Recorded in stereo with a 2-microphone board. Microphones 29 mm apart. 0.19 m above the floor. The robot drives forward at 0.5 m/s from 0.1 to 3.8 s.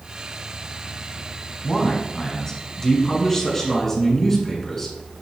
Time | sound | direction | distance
1.6 | a man speaking | 25° left (ahead or behind) | 1.3 m